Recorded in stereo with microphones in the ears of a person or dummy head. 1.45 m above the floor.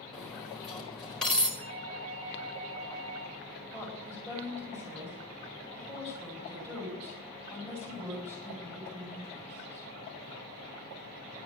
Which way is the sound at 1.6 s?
85° right.